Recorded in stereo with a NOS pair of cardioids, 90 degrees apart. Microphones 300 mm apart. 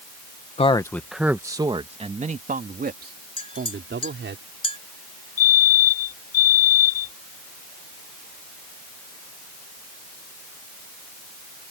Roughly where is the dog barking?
No dog barking in this recording.